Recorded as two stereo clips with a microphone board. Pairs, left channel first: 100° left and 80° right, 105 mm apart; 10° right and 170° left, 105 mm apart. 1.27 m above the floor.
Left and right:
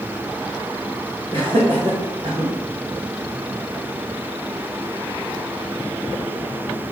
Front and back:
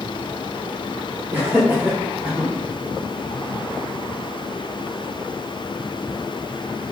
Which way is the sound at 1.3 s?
120° right.